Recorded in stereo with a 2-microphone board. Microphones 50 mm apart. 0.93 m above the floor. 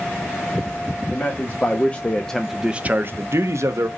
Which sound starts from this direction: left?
A man speaking, at 1.1 s.